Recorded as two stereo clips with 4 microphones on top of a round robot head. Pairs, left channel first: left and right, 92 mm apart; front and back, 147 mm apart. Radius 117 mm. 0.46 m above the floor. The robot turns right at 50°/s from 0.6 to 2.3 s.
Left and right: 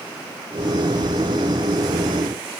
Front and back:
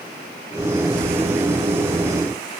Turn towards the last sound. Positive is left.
No sound to turn to.